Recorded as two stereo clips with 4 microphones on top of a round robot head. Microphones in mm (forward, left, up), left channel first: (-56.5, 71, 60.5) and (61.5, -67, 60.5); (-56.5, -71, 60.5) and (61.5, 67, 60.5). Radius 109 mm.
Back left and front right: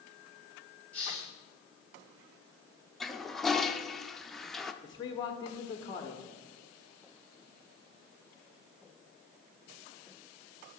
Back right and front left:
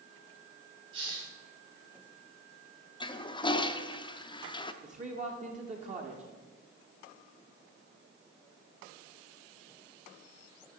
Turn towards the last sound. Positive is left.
turn(degrees=75)